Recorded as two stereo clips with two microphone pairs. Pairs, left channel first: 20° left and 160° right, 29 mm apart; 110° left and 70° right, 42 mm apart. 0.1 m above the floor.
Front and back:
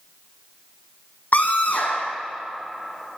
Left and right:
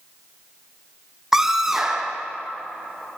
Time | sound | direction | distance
1.3 | a scream | 10° left | 4.5 m